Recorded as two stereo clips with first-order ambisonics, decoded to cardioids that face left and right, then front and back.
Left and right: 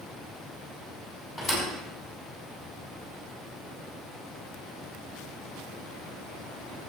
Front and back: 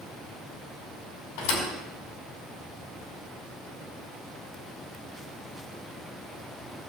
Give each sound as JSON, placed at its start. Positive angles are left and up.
{"t": 1.4, "sound": "a thud", "azimuth_deg": 10, "distance_m": 5.0}